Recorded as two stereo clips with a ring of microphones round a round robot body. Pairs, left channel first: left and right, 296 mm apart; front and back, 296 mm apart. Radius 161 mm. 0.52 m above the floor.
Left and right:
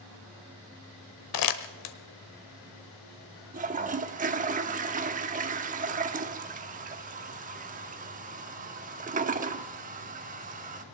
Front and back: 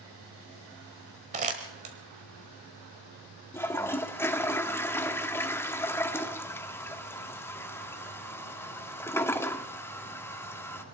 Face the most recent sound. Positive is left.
turn(degrees=-75)